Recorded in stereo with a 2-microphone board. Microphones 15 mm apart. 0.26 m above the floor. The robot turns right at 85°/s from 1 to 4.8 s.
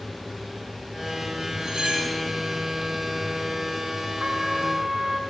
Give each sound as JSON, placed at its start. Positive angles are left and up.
{"t": 1.6, "sound": "cutlery clinking", "azimuth_deg": -145, "distance_m": 2.0}
{"t": 4.2, "sound": "a trumpet", "azimuth_deg": -85, "distance_m": 1.4}